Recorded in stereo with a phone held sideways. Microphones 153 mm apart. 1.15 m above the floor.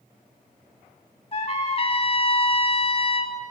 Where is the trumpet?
40° left (ahead or behind), 1.3 m.